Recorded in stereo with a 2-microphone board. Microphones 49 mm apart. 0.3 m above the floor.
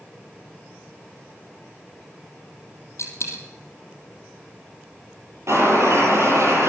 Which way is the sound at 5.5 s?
75° right (ahead or behind).